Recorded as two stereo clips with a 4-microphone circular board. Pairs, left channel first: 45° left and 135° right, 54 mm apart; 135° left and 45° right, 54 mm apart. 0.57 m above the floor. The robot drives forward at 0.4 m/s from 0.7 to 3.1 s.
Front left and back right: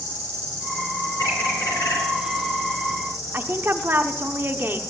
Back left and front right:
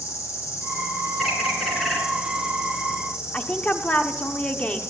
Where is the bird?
45° left, 3.5 m; by 2.0 s 50° left, 3.5 m.